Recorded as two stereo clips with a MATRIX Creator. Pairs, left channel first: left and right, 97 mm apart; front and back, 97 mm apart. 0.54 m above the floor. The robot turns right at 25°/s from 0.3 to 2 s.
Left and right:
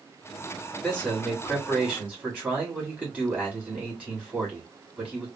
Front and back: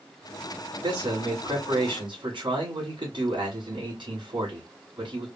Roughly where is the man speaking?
Behind.